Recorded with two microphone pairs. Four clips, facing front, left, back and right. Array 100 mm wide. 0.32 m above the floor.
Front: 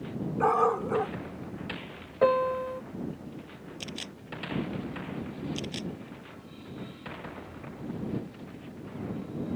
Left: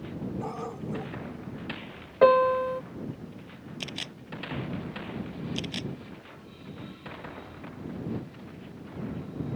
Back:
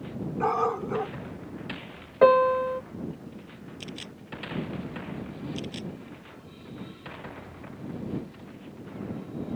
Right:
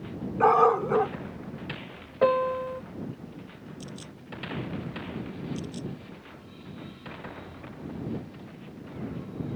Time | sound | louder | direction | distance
0.4 | a dog barking | right 16 dB, front 2 dB | 80° right | ?
2.2 | a piano | left 4 dB, back 6 dB | 145° left | ?
3.8 | a camera shutter | left 3 dB, even | 70° left | ?